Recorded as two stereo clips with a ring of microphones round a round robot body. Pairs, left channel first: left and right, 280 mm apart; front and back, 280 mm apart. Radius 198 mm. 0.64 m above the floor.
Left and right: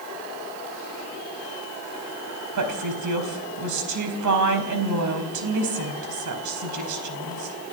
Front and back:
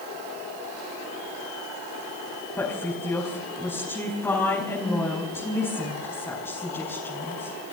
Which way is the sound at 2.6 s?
85° right.